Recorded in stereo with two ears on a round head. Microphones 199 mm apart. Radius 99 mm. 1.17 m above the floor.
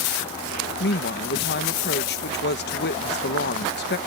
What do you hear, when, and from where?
0.8 s a woman speaking: 50° left (ahead or behind)